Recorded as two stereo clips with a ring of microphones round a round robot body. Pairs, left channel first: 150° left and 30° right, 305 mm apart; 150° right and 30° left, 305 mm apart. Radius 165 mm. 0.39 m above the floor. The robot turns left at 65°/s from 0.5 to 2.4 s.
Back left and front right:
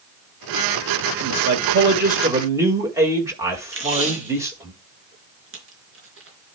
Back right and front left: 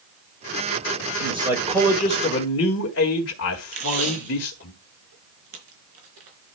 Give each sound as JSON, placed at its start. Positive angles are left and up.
{"t": 1.2, "sound": "a man speaking", "azimuth_deg": -30, "distance_m": 2.0}
{"t": 3.7, "sound": "tape being pulled", "azimuth_deg": 20, "distance_m": 3.5}